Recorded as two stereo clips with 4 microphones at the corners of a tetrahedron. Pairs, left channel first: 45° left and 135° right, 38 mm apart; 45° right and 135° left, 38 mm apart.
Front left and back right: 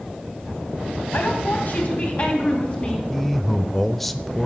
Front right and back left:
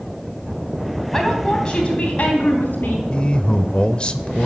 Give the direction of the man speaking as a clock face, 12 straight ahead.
1 o'clock.